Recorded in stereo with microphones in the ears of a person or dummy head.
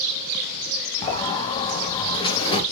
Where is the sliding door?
25° left (ahead or behind), 0.9 m.